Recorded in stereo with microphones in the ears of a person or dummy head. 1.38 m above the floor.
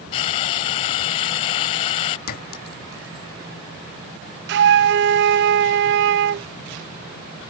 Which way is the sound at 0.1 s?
30° left (ahead or behind).